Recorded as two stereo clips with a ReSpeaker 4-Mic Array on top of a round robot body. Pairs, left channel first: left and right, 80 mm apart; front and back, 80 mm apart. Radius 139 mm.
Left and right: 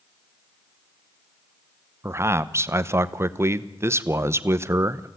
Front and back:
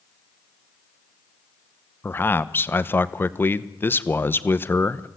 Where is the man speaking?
50° right, 1.1 m.